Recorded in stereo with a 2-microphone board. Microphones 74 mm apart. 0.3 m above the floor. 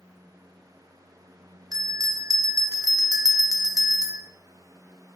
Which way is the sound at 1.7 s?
55° right (ahead or behind).